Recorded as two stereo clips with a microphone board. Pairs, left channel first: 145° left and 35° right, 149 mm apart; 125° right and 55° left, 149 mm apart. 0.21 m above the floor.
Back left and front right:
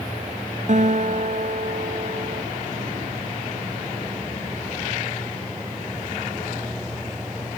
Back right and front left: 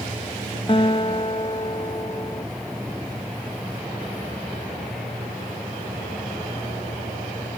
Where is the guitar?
70° right.